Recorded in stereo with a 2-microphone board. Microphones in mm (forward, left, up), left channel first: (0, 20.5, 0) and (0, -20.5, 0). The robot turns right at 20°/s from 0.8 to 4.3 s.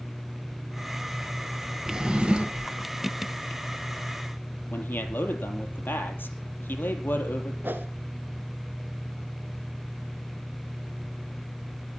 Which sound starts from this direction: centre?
A drawer, at 1.9 s.